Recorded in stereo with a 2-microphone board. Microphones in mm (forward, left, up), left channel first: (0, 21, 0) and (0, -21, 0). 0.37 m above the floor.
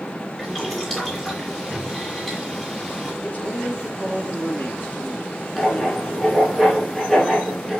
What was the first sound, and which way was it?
Boiling, 15° left (ahead or behind).